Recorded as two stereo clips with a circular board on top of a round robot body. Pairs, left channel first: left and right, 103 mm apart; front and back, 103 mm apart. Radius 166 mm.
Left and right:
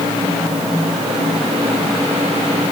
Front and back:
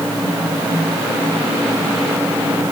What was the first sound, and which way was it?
Only background noise.